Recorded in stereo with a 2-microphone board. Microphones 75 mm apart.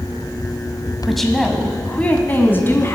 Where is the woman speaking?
Centre (ahead or behind), 1.4 m; by 3.0 s 35° left (ahead or behind), 1.9 m.